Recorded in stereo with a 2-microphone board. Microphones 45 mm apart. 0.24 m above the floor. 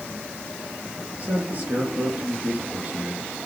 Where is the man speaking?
35° right (ahead or behind), 3 m.